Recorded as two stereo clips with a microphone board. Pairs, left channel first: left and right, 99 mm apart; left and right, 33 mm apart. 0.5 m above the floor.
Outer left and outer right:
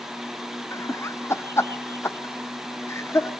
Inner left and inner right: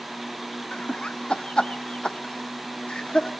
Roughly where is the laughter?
Left.